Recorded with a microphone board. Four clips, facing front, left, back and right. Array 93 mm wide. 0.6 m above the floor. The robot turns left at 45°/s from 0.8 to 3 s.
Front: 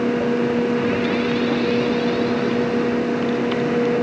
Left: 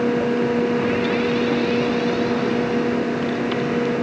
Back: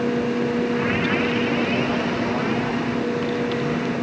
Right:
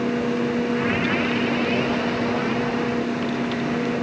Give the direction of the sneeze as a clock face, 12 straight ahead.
I don't hear a sneeze.